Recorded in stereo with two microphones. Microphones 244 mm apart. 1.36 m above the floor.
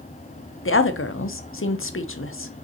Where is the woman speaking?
55° left (ahead or behind), 0.6 m.